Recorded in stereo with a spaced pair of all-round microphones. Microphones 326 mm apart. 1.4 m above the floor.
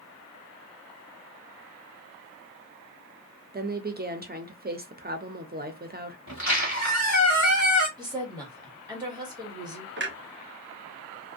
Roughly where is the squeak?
Left.